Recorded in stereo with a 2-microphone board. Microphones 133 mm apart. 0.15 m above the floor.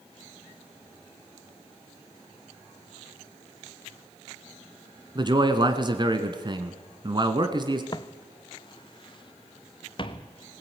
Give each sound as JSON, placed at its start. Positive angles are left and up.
{"t": 5.2, "sound": "a man speaking", "side_deg": -35, "distance_m": 1.5}
{"t": 7.9, "sound": "footsteps", "side_deg": 30, "distance_m": 0.7}